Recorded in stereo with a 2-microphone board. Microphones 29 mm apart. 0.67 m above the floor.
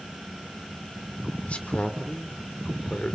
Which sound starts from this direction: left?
A man speaking, at 1.5 s.